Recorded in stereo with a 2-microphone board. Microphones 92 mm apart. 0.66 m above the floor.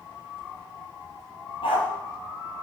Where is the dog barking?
65° left (ahead or behind), 6 m.